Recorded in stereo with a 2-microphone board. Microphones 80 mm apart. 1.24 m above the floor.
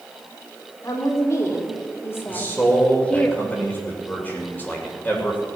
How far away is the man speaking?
About 2.5 m.